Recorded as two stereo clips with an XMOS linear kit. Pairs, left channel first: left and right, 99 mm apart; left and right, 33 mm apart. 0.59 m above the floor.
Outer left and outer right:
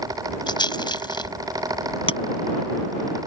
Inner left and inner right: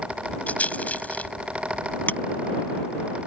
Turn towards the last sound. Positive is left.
turn(degrees=65)  # may be behind; listen again after turning